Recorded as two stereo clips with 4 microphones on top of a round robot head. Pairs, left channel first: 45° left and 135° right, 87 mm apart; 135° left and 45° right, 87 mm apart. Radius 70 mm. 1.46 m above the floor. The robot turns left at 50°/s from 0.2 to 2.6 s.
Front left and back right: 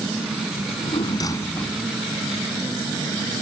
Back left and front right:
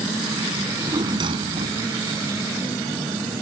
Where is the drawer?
25° left; by 1.8 s 35° right.